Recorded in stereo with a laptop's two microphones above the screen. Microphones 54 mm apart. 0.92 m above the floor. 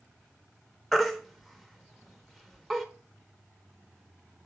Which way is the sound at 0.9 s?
Centre (ahead or behind).